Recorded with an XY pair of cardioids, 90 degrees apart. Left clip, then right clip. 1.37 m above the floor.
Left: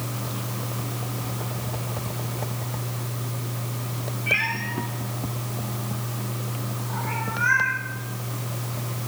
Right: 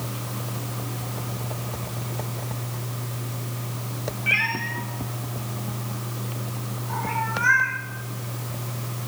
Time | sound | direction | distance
4.3 | a cat meowing | 55° right | 2 m